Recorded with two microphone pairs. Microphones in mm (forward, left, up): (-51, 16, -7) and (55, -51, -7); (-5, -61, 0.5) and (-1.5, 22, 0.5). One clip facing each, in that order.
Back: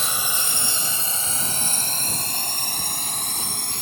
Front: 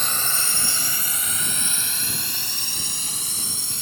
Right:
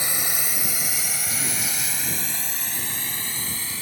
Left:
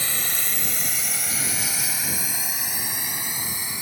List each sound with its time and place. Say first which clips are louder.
0.0 s a drone: back 1 dB, right 1 dB; 140° right; by 3.8 s 160° left